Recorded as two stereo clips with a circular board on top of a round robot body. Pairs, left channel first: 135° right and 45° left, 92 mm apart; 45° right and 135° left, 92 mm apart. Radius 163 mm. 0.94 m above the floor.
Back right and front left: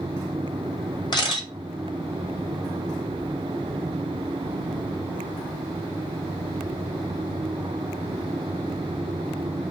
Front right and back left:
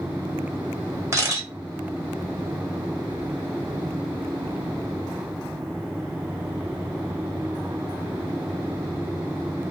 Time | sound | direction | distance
1.1 | a camera shutter | 165° right | 1.7 m